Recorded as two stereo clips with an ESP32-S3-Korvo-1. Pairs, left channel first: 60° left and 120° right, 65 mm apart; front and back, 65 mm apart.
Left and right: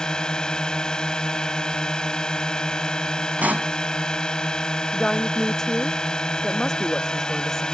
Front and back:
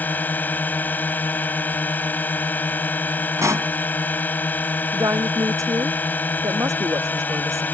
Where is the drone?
5° right.